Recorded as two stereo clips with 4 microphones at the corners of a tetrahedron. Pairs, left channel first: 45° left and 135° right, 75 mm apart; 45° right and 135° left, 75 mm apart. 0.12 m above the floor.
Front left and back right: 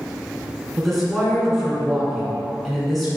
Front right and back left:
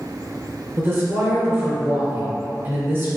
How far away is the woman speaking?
About 1.8 m.